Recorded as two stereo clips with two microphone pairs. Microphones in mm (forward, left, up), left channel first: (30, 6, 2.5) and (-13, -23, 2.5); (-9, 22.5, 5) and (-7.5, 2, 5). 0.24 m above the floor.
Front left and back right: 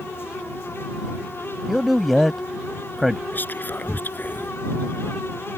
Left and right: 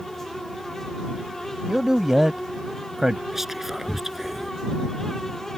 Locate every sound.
1.7 s a man speaking: 60° right
3.3 s whispering: 15° right